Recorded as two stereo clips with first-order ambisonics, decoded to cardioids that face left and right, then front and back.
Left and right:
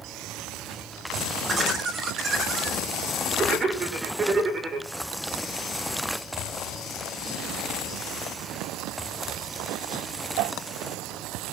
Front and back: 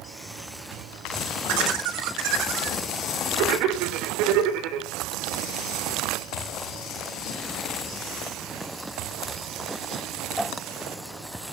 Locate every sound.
1.5 s laughter: 160° right, 3.5 m